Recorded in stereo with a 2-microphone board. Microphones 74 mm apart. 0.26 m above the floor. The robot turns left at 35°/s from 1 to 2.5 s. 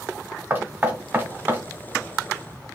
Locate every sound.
0.5 s knocking: 30° right (ahead or behind), 1.3 m; by 1.6 s 25° right (ahead or behind), 1.3 m